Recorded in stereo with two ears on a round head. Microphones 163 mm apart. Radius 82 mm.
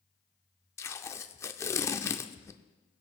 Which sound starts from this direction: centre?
Tape being pulled, at 0.8 s.